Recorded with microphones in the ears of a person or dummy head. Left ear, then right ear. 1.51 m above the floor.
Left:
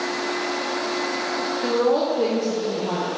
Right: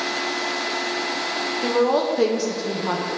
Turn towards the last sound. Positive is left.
turn(degrees=-40)  # may be behind; listen again after turning